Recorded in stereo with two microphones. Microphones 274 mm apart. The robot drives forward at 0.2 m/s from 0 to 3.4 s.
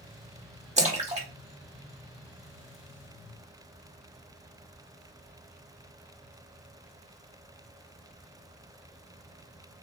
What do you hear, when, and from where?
0.8 s a splash: 25° right (ahead or behind), 1.0 m; by 2.8 s 20° right (ahead or behind), 1.3 m